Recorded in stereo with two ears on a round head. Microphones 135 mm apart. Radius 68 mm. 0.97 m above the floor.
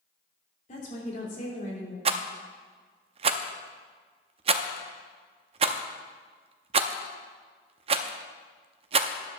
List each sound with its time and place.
0.7 s a woman speaking: 50° left (ahead or behind), 3 m
2.0 s a rattle: 40° right (ahead or behind), 0.5 m